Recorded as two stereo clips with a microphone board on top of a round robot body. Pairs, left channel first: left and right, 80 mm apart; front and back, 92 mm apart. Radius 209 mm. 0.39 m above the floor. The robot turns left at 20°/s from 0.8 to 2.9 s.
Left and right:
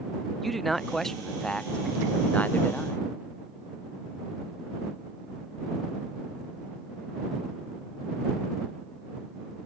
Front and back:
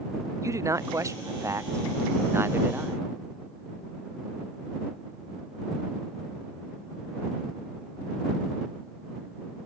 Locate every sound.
0.4 s a man speaking: 175° left; by 3.0 s 135° left